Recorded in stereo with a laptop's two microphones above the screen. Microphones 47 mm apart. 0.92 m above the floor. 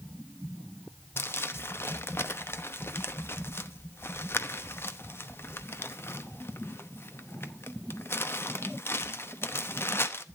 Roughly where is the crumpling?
Left.